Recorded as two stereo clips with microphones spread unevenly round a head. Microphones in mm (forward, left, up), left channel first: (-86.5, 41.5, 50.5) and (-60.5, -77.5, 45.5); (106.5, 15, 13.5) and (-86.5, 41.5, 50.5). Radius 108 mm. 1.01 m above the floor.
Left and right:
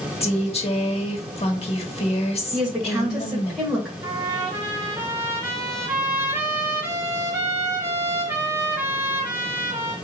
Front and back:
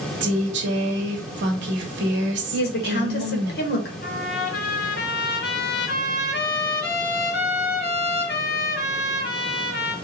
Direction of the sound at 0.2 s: 140° left.